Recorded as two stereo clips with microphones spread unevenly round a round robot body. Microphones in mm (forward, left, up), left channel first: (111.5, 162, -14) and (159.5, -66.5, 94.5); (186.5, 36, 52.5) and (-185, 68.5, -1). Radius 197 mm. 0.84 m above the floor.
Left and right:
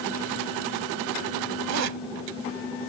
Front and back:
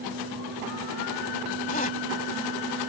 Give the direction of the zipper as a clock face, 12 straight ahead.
3 o'clock.